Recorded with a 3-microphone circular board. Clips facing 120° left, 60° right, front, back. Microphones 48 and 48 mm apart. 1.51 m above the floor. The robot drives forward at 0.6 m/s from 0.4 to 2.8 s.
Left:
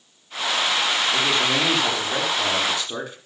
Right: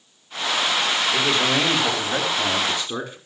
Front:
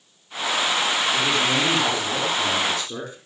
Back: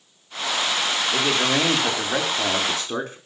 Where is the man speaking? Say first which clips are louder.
Right 2 dB, even; 145° right, 4.5 m; by 3.2 s 150° right, 5.5 m.